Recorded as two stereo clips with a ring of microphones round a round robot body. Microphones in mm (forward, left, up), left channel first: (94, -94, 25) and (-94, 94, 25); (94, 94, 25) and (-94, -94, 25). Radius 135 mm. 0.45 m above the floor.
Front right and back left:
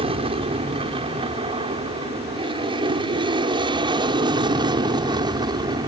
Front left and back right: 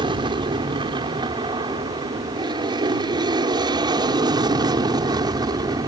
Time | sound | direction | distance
0.0 | an aircraft | 175° left | ?